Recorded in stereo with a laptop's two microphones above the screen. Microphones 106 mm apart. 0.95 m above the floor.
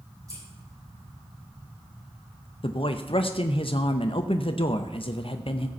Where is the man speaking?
55° left (ahead or behind), 0.6 m.